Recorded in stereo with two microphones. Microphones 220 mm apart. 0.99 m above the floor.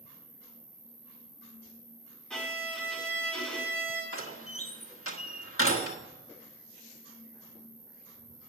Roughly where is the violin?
Centre.